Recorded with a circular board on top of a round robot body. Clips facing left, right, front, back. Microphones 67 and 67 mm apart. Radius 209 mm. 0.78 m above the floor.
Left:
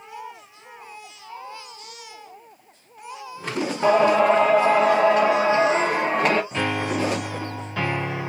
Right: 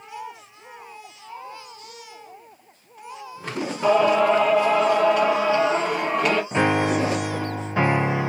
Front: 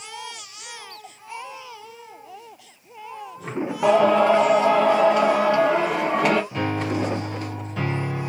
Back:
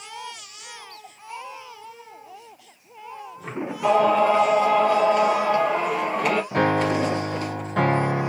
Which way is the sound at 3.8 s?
30° left.